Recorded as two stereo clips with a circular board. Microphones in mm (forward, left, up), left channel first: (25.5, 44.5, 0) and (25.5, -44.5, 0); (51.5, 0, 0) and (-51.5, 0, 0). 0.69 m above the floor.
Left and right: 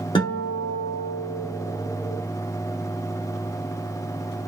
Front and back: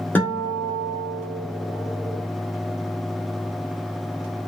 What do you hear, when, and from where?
0.1 s a guitar: 70° left, 1.1 m